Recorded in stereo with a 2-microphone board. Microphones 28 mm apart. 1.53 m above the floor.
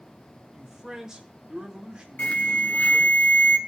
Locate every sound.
0.5 s a man speaking: 10° right (ahead or behind), 2.5 m; by 3.2 s 35° right (ahead or behind), 4.5 m
2.2 s an alarm: 70° left (ahead or behind), 1.2 m